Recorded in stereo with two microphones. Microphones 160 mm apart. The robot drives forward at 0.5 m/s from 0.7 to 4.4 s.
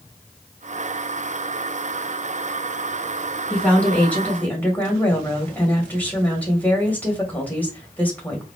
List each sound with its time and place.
3.5 s a woman speaking: 10° left (ahead or behind), 3 m